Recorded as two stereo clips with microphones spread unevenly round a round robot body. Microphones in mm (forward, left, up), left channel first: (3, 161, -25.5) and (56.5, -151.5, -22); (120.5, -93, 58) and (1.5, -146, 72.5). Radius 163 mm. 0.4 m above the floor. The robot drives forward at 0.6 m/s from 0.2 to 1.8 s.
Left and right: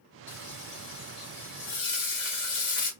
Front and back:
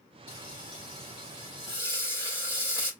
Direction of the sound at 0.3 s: 90° left.